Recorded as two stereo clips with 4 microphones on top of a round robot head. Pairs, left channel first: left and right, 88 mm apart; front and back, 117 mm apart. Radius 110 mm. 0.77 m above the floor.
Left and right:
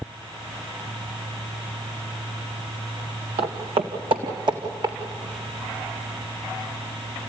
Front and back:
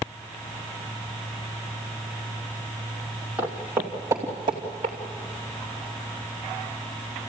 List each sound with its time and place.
3.4 s footsteps: 100° right, 2.5 m; by 5.0 s 130° right, 3.5 m